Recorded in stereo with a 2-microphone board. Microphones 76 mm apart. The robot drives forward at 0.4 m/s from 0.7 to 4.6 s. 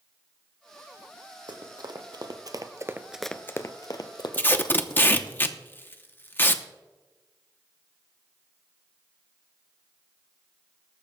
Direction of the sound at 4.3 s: 25° left (ahead or behind).